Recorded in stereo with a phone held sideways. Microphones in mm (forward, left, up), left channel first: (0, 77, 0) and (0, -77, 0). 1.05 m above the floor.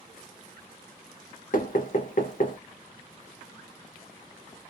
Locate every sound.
1.5 s knocking: 60° left (ahead or behind), 0.6 m